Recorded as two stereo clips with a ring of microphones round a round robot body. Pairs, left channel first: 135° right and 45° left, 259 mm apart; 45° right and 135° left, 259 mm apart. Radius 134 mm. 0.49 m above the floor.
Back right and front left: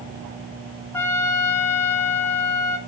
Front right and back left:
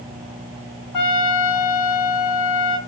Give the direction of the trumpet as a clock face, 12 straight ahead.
2 o'clock.